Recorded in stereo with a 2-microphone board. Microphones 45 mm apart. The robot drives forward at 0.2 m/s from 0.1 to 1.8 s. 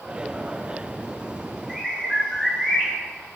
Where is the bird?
Centre (ahead or behind), 0.8 m.